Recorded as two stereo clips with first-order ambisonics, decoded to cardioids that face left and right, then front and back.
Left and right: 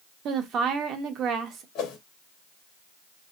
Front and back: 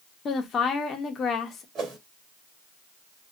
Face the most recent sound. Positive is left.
turn(degrees=125)